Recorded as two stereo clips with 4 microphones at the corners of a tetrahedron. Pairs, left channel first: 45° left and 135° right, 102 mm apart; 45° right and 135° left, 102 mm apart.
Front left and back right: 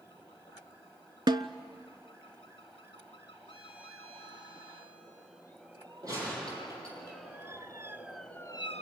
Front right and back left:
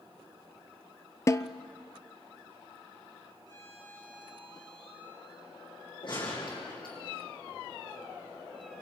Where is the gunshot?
80° right, 6.5 m.